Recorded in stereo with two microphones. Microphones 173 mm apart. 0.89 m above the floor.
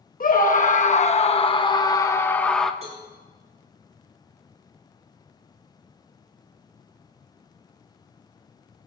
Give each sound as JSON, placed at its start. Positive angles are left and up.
{"t": 0.2, "sound": "a scream", "side_deg": 55, "distance_m": 1.5}
{"t": 2.8, "sound": "a cowbell", "side_deg": -40, "distance_m": 8.0}